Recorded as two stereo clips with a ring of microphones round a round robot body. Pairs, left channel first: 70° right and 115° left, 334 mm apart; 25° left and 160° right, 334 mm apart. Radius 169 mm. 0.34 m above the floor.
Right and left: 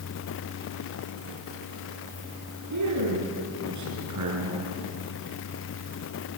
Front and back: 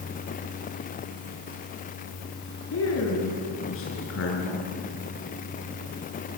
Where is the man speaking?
75° left, 5 m.